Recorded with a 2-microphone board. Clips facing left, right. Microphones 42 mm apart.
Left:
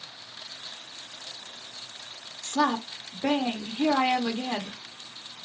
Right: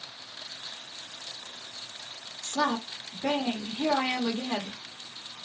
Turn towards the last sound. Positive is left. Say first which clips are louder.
# left 3 dB
turn(degrees=25)  # may be behind; listen again after turning